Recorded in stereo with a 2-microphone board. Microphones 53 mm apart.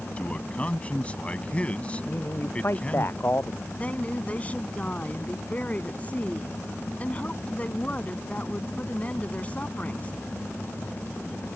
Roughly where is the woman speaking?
Left.